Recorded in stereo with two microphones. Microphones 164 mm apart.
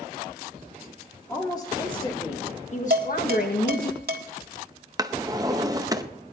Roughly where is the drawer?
Right.